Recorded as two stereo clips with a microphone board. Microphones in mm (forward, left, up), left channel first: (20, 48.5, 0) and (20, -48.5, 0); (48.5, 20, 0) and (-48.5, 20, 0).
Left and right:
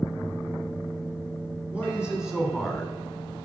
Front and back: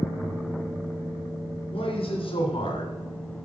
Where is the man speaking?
10° right, 3.5 m; by 2.9 s 5° left, 2 m.